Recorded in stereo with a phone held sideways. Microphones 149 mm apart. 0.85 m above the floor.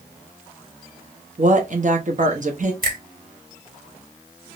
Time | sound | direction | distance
1.4 | a woman speaking | 55° right (ahead or behind) | 1.0 m
2.8 | a finger snap | 70° right (ahead or behind) | 2.5 m